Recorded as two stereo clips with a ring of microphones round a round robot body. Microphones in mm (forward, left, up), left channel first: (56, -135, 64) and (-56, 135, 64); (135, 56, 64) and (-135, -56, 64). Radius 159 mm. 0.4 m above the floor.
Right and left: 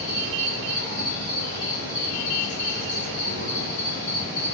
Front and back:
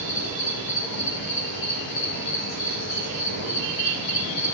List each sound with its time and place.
0.0 s an insect: 10° left, 4 m